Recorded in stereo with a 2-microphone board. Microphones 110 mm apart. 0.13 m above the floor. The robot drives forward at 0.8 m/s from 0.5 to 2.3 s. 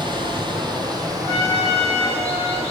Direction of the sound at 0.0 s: 50° right (ahead or behind).